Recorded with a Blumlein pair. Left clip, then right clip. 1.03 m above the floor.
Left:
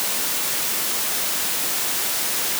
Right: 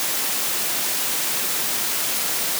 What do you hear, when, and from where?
Only background noise.